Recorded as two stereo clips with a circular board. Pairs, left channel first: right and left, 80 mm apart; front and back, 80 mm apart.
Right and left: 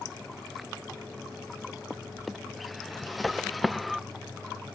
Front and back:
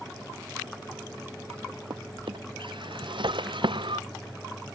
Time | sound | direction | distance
1.9 | a drawer | straight behind | ?